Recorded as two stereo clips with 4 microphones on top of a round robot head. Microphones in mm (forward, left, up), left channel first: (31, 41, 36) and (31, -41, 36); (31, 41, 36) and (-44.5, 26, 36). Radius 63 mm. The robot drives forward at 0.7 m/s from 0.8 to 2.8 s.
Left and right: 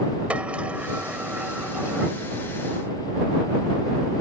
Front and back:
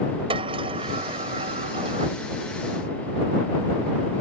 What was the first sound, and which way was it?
A sliding door, 170° right.